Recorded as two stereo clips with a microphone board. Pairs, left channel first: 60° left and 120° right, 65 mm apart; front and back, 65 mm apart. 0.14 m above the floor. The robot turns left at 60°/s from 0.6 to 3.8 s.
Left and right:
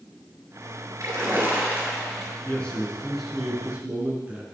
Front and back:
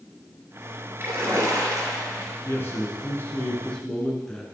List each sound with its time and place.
1.0 s a splash: 135° right, 2.5 m; by 2.4 s 140° left, 2.5 m
2.5 s a man speaking: 10° left, 1.9 m; by 4.4 s 70° right, 1.9 m